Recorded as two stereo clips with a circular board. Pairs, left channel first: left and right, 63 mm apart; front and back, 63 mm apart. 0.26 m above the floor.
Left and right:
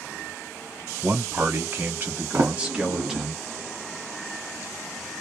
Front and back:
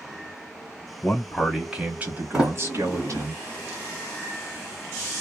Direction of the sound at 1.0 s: 75° right.